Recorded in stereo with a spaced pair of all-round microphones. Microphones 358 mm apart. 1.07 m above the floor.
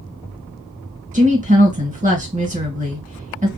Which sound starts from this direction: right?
A woman speaking, at 1.1 s.